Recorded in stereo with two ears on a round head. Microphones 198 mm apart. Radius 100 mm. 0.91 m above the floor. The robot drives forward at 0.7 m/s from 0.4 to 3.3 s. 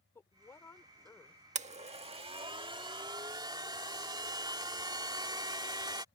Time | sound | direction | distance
0.1 | a woman speaking | 10° left (ahead or behind) | ?
1.6 | a blender | 35° right (ahead or behind) | ?